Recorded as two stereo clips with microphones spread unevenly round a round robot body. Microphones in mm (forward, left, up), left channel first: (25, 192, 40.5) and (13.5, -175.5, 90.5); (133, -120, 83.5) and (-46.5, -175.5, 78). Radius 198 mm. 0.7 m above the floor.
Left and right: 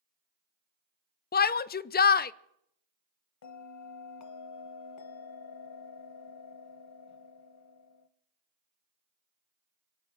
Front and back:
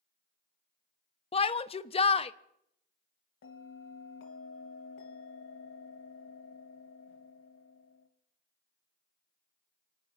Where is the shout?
55° left, 0.5 m.